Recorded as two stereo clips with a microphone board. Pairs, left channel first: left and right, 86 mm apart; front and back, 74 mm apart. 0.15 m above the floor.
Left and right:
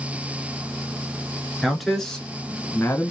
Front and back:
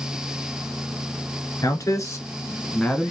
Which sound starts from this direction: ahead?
A man speaking, at 1.6 s.